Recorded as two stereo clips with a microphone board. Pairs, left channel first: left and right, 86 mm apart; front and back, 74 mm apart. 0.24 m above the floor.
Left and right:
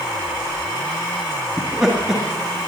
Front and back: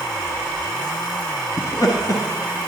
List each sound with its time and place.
1.6 s laughter: 5° right, 2 m